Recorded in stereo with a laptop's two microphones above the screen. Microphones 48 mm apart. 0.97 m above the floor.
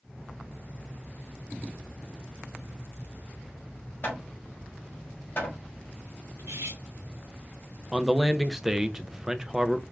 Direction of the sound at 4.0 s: 40° left (ahead or behind).